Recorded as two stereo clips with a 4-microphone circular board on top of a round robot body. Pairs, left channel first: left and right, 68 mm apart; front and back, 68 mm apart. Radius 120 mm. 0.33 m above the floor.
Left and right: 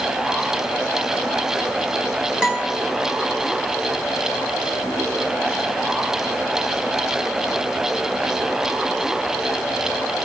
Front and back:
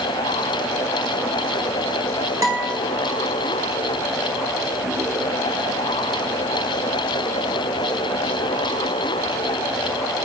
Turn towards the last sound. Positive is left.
turn(degrees=-165)